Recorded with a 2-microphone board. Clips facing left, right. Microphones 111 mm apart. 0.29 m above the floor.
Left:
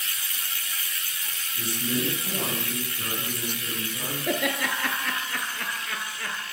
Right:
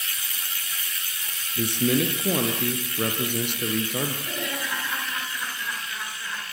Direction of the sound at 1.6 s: 70° right (ahead or behind).